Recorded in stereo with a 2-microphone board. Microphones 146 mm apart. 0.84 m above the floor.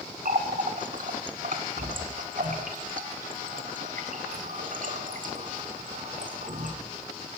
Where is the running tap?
65° right (ahead or behind), 1.6 m.